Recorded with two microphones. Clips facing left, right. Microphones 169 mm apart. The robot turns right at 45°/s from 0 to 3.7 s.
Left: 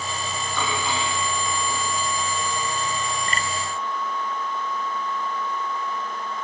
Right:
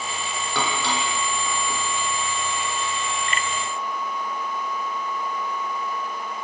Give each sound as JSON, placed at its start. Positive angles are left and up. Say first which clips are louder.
{"t": 0.6, "sound": "dishes clattering", "louder": "right 1 dB", "side_deg": -75, "distance_m": 5.5}